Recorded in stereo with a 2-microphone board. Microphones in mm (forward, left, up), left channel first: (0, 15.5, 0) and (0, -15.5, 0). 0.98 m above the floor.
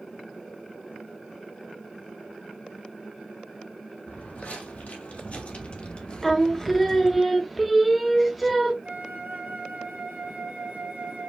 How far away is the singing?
About 0.6 m.